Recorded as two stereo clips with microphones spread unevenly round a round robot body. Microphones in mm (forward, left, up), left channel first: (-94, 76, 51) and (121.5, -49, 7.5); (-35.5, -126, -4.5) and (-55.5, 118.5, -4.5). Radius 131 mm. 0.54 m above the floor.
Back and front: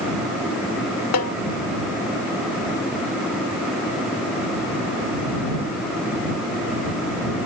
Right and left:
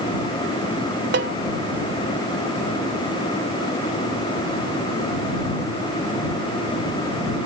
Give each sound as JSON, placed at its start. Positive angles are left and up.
{"t": 1.1, "sound": "a snare drum", "azimuth_deg": 130}